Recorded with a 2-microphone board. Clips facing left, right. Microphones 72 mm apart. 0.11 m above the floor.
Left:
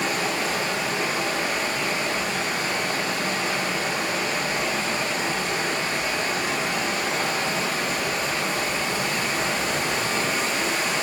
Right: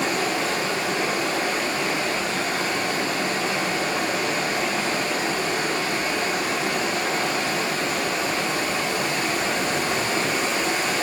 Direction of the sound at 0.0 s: 50° right (ahead or behind).